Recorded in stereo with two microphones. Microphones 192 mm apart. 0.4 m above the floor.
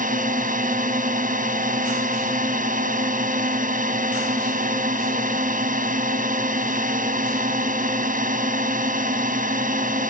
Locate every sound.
0.0 s a drone: 45° right (ahead or behind)